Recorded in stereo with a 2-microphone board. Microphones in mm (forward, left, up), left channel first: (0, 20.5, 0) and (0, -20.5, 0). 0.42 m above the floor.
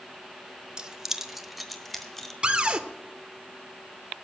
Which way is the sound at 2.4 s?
25° right (ahead or behind).